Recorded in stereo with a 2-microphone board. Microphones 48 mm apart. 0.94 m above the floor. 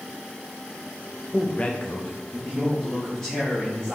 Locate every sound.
1.3 s a man speaking: 20° left (ahead or behind), 0.9 m; by 4.0 s 10° left (ahead or behind), 3.5 m